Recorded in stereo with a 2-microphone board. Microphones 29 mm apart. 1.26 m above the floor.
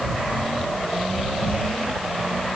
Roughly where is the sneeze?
No sneeze in this recording.